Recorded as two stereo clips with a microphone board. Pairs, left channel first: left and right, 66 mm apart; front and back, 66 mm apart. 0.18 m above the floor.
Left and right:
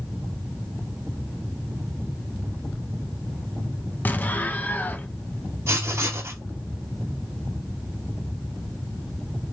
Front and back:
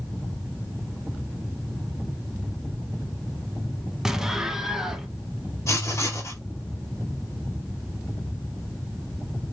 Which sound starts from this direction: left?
An explosion, at 4.0 s.